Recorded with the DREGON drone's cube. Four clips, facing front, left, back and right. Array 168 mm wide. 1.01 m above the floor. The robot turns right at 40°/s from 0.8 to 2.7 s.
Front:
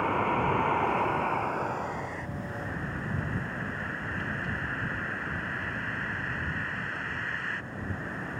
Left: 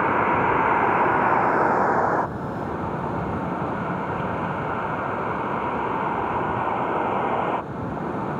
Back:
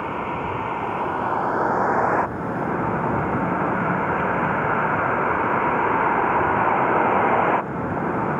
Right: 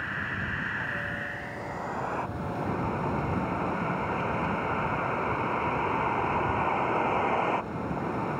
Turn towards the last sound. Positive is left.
turn(degrees=170)